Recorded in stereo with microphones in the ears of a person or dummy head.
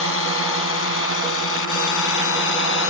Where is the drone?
80° left; by 2.9 s 75° left (ahead or behind).